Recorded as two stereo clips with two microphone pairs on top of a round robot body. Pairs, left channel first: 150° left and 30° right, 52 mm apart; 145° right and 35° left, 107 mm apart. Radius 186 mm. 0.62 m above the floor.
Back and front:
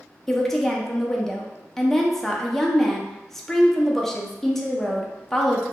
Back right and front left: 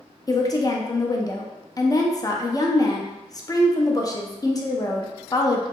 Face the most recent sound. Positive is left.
turn(degrees=-125)